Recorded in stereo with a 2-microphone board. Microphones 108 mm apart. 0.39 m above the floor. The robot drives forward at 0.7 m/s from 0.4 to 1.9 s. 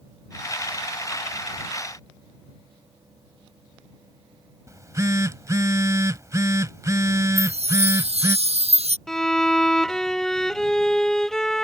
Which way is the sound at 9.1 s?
5° left (ahead or behind).